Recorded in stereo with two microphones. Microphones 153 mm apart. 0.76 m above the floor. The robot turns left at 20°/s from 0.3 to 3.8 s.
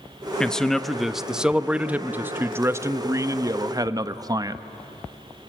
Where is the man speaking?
10° left, 0.6 m; by 4.6 s 60° right, 0.6 m.